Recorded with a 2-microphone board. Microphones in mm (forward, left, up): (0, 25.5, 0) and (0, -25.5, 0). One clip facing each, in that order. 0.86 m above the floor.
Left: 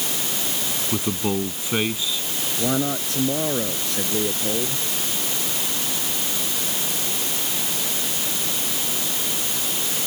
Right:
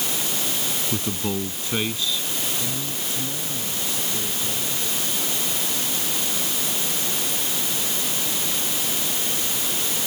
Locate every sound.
0.9 s a man speaking: 15° left (ahead or behind)
2.6 s a man speaking: 65° left (ahead or behind)